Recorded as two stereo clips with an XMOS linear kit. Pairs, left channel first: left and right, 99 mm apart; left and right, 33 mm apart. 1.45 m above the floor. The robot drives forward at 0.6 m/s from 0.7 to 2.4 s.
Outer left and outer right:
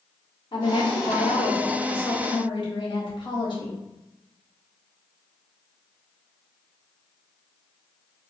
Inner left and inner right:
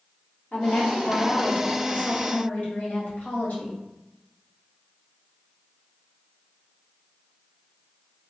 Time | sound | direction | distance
0.5 | a woman speaking | 55° left (ahead or behind) | 0.9 m